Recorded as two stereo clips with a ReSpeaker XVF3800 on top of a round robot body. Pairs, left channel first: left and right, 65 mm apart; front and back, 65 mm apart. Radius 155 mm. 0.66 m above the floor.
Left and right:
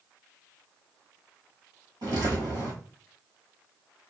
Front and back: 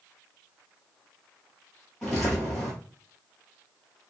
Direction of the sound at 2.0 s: 85° right.